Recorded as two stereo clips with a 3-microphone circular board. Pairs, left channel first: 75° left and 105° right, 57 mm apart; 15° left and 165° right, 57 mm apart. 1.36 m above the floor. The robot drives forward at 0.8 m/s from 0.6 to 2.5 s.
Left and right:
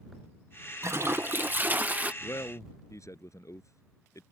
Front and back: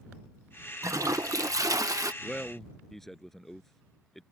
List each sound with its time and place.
0.8 s a toilet flushing: 140° right; by 2.1 s 165° right
2.2 s a man speaking: 100° left